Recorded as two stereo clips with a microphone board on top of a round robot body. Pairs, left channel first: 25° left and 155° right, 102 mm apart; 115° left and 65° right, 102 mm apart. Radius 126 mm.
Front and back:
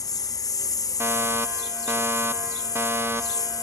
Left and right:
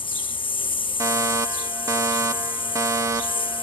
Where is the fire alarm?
105° right.